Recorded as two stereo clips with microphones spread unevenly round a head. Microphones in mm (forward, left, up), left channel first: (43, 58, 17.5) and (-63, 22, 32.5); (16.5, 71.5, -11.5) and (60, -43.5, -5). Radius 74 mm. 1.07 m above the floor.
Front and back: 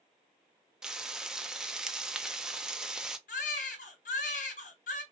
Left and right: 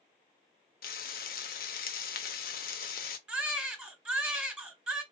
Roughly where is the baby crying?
Ahead.